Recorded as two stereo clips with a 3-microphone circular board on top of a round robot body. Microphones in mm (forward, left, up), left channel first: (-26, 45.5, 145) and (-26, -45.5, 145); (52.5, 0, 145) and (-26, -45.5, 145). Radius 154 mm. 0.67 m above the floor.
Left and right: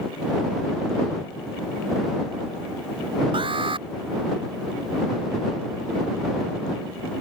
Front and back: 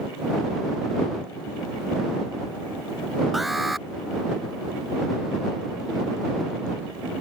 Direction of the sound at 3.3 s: 60° right.